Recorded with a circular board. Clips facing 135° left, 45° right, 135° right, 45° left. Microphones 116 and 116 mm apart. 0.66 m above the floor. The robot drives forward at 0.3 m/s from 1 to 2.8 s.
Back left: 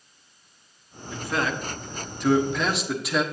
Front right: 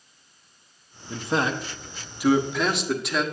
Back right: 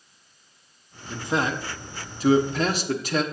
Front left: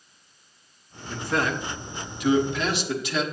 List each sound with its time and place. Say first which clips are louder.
1.1 s a man speaking: front right 2 dB, even; 75° right, 0.7 m; by 3.2 s 135° right, 0.8 m